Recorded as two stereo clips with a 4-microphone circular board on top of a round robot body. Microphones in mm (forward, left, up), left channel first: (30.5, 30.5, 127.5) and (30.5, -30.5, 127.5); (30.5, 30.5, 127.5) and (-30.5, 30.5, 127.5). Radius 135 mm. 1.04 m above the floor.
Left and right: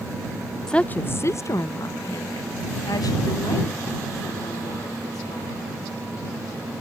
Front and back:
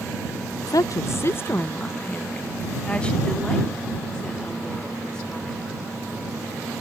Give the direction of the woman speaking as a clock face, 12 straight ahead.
12 o'clock.